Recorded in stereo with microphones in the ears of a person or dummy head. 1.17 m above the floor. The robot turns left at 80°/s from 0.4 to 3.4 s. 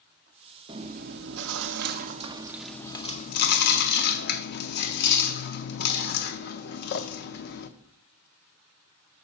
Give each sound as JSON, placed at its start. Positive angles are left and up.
{"t": 0.7, "sound": "chewing", "azimuth_deg": -25, "distance_m": 0.5}